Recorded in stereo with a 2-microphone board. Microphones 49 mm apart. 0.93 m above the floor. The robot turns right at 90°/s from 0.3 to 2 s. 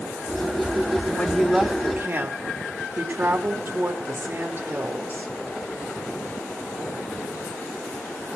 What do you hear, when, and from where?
1.1 s a woman speaking: 150° left, 1.7 m; by 5.3 s 135° right, 1.7 m